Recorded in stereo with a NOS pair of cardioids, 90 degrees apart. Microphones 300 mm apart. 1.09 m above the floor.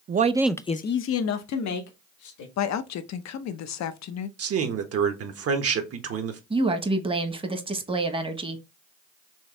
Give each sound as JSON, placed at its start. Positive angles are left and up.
{"t": 0.1, "sound": "a man speaking", "azimuth_deg": -35, "distance_m": 0.6}
{"t": 2.6, "sound": "a woman speaking", "azimuth_deg": 65, "distance_m": 0.7}
{"t": 4.4, "sound": "a man speaking", "azimuth_deg": -55, "distance_m": 1.3}
{"t": 6.5, "sound": "a woman speaking", "azimuth_deg": -20, "distance_m": 1.1}